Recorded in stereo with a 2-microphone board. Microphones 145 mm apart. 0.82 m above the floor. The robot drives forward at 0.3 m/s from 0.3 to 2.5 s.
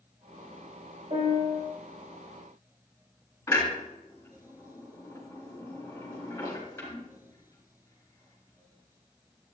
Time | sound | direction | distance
1.1 | a piano | 40° right (ahead or behind) | 3 m
3.5 | a clunk | 15° left (ahead or behind) | 4.5 m